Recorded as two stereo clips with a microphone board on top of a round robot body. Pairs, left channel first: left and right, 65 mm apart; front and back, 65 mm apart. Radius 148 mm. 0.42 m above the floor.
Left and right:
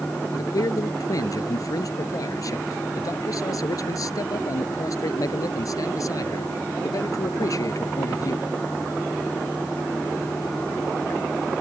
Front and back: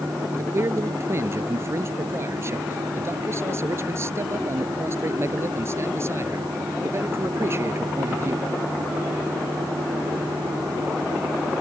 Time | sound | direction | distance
0.3 | a man speaking | 130° left | ?